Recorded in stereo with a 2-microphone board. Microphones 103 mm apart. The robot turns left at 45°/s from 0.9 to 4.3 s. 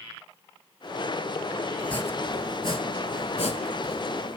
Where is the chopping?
10° left (ahead or behind), 0.6 m; by 4.4 s 55° left (ahead or behind), 0.6 m.